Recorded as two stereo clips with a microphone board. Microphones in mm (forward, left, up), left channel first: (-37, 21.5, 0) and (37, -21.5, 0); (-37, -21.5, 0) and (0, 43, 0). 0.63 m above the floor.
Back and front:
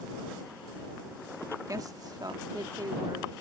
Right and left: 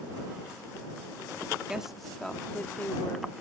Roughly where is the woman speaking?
Ahead.